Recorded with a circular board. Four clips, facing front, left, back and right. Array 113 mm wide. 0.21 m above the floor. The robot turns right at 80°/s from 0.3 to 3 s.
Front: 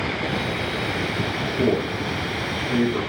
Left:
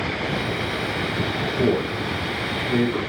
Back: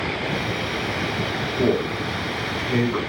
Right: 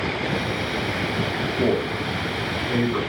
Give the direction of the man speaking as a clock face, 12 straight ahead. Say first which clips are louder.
Left 1 dB, back 1 dB; 10 o'clock.